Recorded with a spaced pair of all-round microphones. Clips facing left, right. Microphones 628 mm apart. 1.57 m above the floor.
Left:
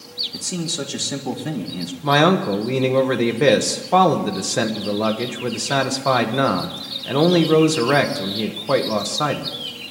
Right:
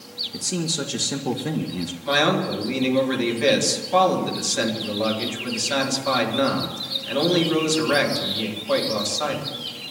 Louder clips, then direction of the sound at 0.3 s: Even; 5° left (ahead or behind).